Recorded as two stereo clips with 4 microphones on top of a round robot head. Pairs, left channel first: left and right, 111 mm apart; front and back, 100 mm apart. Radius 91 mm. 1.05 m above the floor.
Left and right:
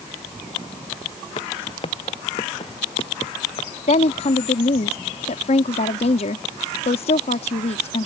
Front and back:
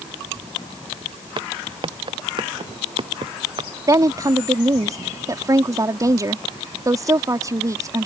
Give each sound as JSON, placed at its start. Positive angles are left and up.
{"t": 1.4, "sound": "footsteps", "azimuth_deg": 140}
{"t": 3.9, "sound": "a woman speaking", "azimuth_deg": 125}